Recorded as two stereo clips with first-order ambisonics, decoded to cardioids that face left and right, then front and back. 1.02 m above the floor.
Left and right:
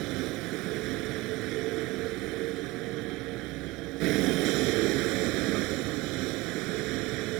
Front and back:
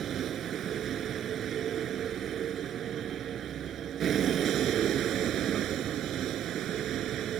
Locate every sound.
0.0 s a vehicle: 120° right